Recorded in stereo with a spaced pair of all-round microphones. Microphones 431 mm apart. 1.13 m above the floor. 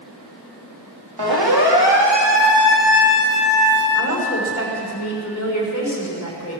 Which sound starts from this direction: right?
A siren, at 1.2 s.